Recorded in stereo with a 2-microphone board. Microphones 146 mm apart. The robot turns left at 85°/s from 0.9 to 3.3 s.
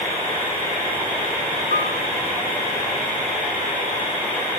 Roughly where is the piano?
Right.